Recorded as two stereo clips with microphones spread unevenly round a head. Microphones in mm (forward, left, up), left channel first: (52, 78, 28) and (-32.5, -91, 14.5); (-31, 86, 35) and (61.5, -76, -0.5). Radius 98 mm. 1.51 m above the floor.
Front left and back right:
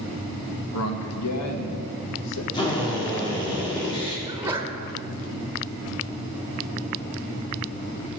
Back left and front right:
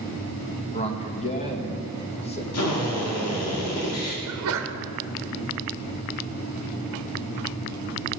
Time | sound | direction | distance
0.7 | a man speaking | 60° left | 1.9 m
2.5 | a drill | 130° left | 3 m
4.3 | a sneeze | 35° right | 1.2 m